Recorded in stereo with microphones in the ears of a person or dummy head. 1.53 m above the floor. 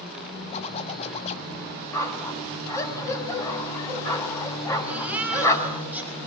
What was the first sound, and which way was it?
A zipper, 35° left (ahead or behind).